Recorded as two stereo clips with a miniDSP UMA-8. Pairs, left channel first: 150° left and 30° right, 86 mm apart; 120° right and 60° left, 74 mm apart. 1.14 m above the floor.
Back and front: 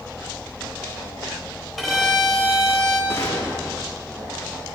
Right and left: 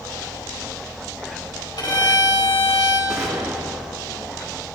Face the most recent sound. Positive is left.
turn(degrees=100)